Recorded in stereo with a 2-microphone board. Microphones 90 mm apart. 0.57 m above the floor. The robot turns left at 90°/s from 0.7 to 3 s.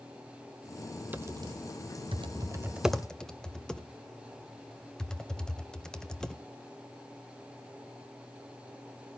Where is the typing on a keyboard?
20° right (ahead or behind), 0.8 m; by 6.4 s 5° left (ahead or behind), 0.8 m.